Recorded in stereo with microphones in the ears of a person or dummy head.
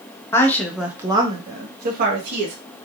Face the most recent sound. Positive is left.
turn(degrees=-65)  # may be behind; listen again after turning